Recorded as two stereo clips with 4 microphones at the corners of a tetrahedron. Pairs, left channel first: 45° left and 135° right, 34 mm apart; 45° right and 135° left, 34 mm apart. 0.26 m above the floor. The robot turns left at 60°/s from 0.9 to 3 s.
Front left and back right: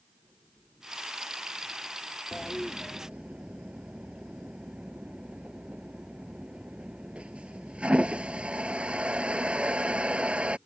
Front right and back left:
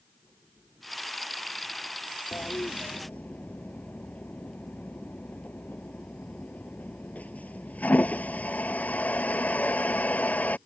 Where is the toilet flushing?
40° right; by 10.6 s 80° right.